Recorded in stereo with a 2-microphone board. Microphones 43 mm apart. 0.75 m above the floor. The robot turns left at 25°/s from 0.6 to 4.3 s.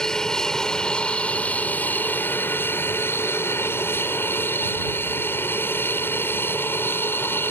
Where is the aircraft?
165° left; by 7.5 s 70° left.